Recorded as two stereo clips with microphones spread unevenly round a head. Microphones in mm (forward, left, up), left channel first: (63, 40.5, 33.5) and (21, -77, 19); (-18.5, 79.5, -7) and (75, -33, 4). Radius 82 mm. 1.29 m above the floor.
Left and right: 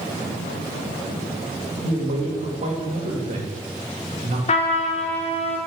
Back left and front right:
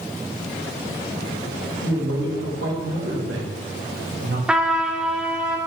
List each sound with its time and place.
1.8 s a man speaking: 75° right, 1.7 m
4.5 s a trumpet: 35° left, 0.9 m